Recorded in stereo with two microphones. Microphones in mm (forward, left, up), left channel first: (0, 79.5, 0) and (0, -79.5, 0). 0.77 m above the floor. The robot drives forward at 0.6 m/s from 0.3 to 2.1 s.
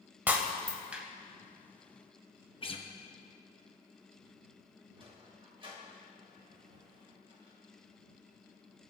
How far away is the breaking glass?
About 1.1 m.